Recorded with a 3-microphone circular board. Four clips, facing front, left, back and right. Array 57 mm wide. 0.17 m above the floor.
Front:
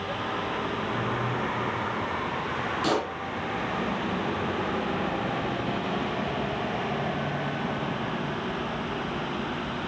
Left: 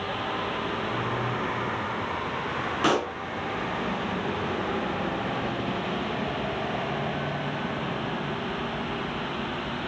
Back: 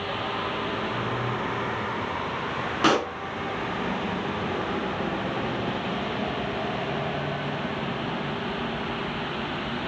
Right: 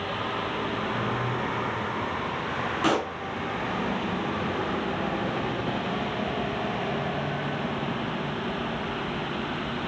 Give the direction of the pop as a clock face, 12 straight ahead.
6 o'clock.